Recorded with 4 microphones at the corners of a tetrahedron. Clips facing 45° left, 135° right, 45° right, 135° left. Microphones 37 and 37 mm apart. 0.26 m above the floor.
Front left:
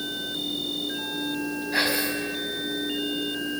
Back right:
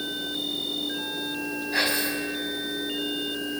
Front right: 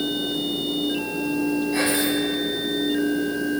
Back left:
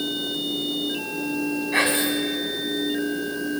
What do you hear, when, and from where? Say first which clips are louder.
1.7 s whispering: front left 1 dB, even; 130° left, 1.8 m